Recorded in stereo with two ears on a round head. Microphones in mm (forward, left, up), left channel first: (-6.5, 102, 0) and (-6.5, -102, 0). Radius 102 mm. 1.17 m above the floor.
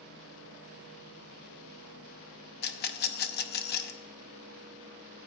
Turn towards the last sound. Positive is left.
turn(degrees=45)  # may be behind; listen again after turning